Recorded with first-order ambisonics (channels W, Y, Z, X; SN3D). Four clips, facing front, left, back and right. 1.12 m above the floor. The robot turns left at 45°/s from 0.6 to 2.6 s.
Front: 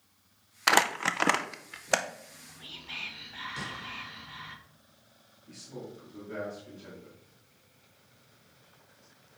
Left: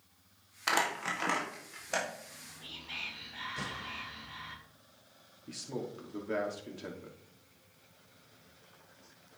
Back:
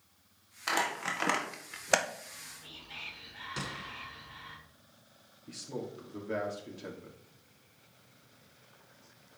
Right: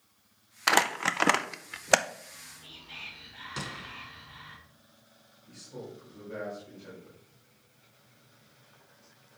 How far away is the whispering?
About 2 m.